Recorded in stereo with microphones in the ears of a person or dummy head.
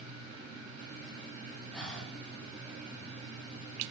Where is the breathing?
5° left (ahead or behind), 0.5 m.